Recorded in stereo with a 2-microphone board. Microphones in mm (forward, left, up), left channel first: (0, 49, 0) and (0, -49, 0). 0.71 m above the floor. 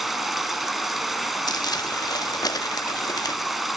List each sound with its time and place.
0.0 s running water: centre (ahead or behind), 1.0 m
1.5 s crumpling: 40° left (ahead or behind), 0.8 m